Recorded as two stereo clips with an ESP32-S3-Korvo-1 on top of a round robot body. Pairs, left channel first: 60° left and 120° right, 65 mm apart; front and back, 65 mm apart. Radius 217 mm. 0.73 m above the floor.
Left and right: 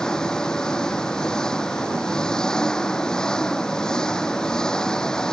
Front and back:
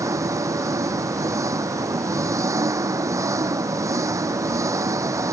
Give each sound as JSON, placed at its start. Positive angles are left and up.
{"t": 0.0, "sound": "an engine running", "azimuth_deg": 140}